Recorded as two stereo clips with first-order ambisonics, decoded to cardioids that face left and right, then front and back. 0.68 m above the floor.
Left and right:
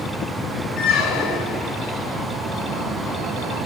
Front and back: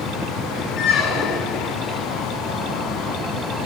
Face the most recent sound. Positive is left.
turn(degrees=45)